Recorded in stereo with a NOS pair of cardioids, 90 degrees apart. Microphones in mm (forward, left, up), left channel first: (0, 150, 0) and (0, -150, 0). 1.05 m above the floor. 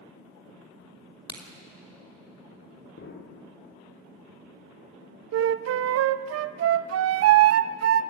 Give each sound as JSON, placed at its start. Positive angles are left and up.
{"t": 1.3, "sound": "a crack", "azimuth_deg": 15, "distance_m": 3.0}
{"t": 3.0, "sound": "an explosion", "azimuth_deg": 45, "distance_m": 2.5}
{"t": 5.3, "sound": "a flute", "azimuth_deg": -55, "distance_m": 0.6}